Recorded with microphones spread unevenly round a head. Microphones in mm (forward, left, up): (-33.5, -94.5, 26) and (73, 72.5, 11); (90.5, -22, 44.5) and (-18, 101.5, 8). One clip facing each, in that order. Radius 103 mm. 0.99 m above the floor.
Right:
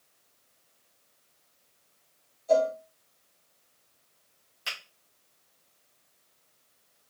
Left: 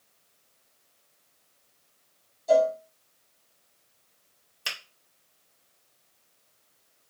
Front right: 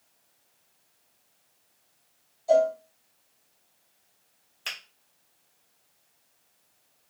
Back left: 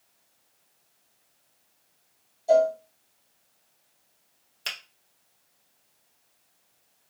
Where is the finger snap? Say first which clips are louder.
Left 2 dB, back left 2 dB; 90° left, 2.0 m.